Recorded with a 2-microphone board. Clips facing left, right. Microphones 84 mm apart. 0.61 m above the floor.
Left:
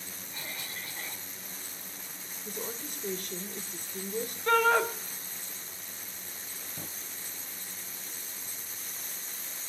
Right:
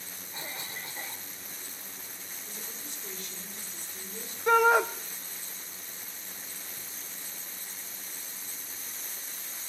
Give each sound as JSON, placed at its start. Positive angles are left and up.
{"t": 0.3, "sound": "a cough", "side_deg": -25, "distance_m": 1.6}
{"t": 2.5, "sound": "a woman speaking", "side_deg": 55, "distance_m": 2.0}
{"t": 4.5, "sound": "a shout", "side_deg": -15, "distance_m": 1.0}
{"t": 6.8, "sound": "a drawer", "side_deg": 60, "distance_m": 0.6}